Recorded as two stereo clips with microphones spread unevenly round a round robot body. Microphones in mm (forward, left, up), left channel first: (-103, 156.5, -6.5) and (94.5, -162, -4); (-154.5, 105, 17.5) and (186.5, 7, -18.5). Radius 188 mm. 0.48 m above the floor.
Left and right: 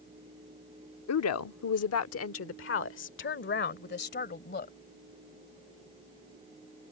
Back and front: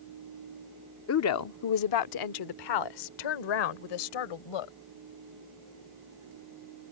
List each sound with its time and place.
1.1 s a woman speaking: 130° left; by 4.8 s 175° right